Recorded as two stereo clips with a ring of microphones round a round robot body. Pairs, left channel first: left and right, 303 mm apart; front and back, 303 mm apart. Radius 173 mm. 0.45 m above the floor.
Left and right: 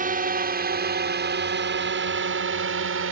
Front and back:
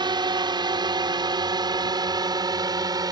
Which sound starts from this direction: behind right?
A drone, at 0.0 s.